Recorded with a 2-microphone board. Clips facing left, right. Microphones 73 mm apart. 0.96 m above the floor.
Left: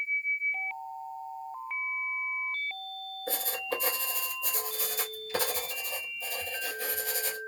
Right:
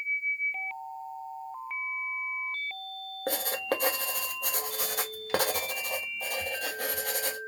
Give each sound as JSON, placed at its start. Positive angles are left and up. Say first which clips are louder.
{"t": 3.3, "sound": "writing", "louder": "right 4 dB", "side_deg": -65, "distance_m": 1.2}